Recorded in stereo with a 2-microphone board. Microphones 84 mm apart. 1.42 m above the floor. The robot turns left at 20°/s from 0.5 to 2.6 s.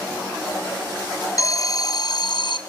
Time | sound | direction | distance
1.4 | an alarm | 40° left (ahead or behind) | 0.7 m